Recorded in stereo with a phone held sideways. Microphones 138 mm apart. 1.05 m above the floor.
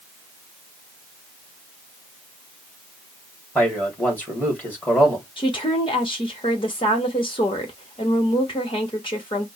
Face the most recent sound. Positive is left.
turn(degrees=40)  # may be behind; listen again after turning